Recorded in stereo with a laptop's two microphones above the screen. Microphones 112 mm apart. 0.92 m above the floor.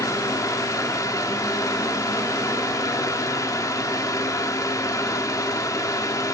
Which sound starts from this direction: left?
A fan, at 0.0 s.